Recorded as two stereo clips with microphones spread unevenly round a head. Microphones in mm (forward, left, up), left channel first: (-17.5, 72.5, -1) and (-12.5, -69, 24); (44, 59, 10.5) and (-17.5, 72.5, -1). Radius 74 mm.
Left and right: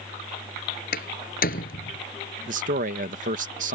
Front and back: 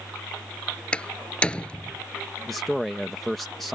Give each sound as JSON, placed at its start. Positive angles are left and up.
{"t": 0.9, "sound": "a door slam", "azimuth_deg": 60}
{"t": 2.5, "sound": "a man speaking", "azimuth_deg": -105}